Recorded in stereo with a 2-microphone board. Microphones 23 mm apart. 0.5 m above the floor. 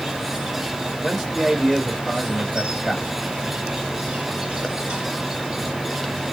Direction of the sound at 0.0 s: 55° right (ahead or behind).